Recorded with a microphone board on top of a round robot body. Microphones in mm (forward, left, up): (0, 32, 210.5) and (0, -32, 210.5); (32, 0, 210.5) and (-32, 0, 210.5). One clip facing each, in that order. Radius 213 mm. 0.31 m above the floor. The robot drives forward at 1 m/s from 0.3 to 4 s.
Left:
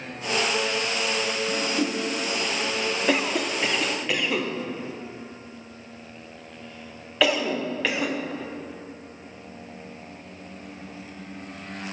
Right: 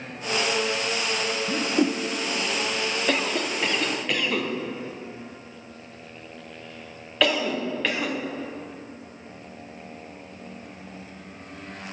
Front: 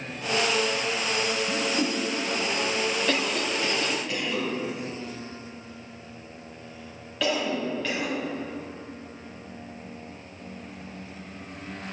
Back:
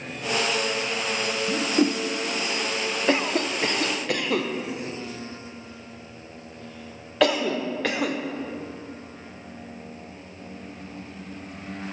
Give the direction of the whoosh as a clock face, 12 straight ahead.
4 o'clock.